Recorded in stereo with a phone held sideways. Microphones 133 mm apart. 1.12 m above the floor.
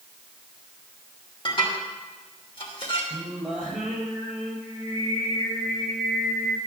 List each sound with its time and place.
1.4 s dishes clattering: 40° left (ahead or behind), 3 m
3.1 s singing: 5° left (ahead or behind), 5 m